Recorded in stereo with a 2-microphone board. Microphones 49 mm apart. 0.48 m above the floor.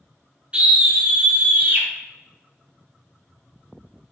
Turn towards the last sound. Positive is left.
turn(degrees=-50)  # may be behind; listen again after turning